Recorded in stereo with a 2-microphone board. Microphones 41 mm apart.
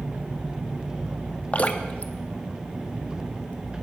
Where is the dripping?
35° left (ahead or behind), 0.9 m.